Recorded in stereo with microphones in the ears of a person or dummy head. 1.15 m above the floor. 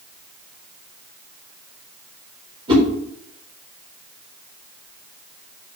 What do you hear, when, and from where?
2.7 s a whoosh: 35° right (ahead or behind), 5 m